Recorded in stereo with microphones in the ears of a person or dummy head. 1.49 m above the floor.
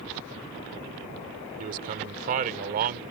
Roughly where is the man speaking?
Right.